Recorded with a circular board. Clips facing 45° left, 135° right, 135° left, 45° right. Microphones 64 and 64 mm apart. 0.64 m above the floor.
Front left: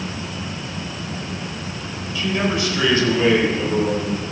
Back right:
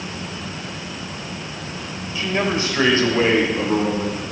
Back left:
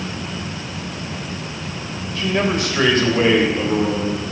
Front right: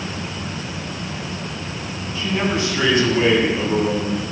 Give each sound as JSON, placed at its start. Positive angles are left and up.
{"t": 2.1, "sound": "a man speaking", "azimuth_deg": 160, "distance_m": 3.5}